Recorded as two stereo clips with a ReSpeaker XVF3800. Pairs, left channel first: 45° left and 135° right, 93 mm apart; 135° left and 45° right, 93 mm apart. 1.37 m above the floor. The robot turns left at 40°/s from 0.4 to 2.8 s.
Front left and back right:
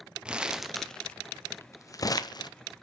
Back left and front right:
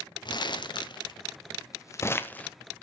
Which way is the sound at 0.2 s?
145° left.